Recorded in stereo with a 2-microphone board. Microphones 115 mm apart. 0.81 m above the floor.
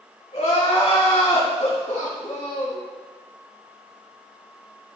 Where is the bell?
No bell in this recording.